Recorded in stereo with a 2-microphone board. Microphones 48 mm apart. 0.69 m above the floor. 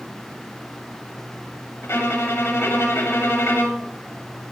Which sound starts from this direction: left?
A violin, at 1.8 s.